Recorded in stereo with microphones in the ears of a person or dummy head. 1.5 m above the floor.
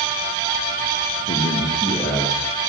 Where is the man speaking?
30° left (ahead or behind), 0.9 m; by 2.5 s 10° right (ahead or behind), 1.6 m.